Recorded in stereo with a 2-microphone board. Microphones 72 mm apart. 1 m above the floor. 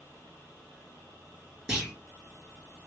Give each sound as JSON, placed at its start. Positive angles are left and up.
{"t": 1.7, "sound": "a clunk", "side_deg": -15, "distance_m": 2.0}